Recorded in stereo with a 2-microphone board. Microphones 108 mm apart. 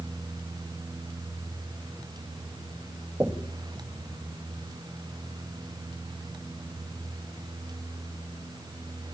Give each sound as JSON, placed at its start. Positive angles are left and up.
{"t": 3.2, "sound": "knocking", "side_deg": -20, "distance_m": 1.3}